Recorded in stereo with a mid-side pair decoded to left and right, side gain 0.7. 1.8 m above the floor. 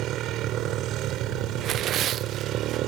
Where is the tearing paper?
45° right.